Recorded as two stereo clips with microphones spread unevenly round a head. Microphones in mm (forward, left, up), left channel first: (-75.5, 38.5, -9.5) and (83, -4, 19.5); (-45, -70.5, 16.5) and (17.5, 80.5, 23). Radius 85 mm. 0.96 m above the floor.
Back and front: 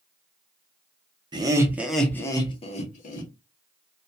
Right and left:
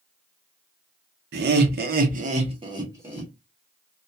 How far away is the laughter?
About 0.8 m.